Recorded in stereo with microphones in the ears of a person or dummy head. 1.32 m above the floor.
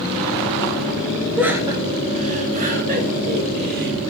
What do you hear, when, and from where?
1.4 s laughter: 5° right (ahead or behind), 1.3 m; by 3.9 s 55° right (ahead or behind), 4.5 m